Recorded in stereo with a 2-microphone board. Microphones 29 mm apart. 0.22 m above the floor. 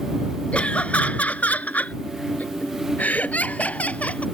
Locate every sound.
0.5 s laughter: 45° left (ahead or behind); by 4.2 s 55° left (ahead or behind)